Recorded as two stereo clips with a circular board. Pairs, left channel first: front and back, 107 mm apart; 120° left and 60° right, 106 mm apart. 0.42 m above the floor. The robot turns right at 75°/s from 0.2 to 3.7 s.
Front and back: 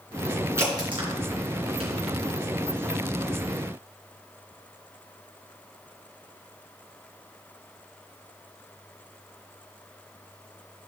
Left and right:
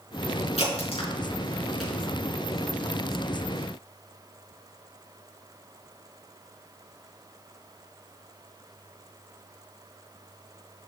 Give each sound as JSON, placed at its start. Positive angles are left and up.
{"t": 0.6, "sound": "a crack", "azimuth_deg": 115, "distance_m": 4.0}